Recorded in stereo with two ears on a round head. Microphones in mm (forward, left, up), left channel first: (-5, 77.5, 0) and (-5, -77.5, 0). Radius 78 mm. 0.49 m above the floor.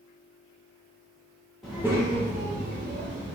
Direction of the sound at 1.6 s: Centre (ahead or behind).